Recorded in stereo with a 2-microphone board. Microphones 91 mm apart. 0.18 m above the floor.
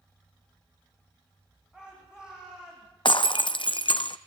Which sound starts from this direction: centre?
A shout, at 1.7 s.